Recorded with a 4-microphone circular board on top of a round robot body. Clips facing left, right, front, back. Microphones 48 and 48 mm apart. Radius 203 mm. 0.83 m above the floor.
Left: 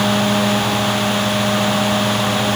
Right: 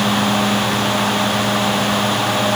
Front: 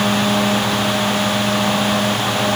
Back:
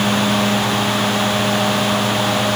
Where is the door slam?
I don't hear a door slam.